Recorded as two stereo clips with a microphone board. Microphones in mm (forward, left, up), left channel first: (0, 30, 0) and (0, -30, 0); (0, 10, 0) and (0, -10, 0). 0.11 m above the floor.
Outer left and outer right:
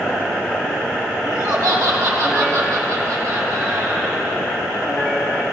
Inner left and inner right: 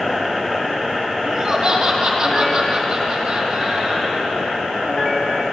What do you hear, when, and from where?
1.2 s laughter: 55° right (ahead or behind), 3.5 m